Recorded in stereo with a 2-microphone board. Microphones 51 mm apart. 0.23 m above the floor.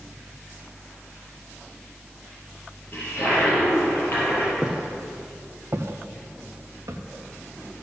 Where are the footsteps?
5° right (ahead or behind), 1.4 m; by 7.0 s 85° right, 1.9 m.